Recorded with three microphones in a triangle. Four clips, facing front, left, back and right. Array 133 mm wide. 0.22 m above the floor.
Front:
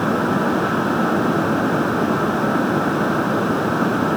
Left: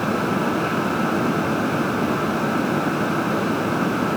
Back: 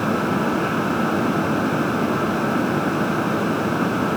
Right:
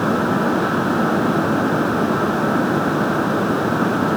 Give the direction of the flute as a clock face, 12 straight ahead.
I don't hear a flute.